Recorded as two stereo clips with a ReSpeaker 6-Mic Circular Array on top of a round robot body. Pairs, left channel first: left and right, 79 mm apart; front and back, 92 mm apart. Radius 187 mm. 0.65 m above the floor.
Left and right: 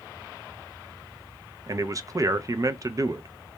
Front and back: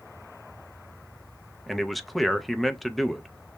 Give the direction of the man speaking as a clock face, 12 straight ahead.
3 o'clock.